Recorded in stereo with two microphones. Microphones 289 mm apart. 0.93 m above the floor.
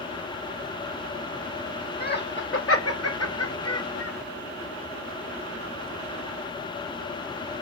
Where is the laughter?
35° left (ahead or behind), 1.0 m; by 4.1 s 55° left (ahead or behind), 1.3 m.